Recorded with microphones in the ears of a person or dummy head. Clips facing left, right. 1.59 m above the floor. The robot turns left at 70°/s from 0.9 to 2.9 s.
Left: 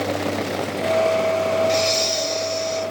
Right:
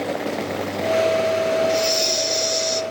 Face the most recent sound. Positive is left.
turn(degrees=-90)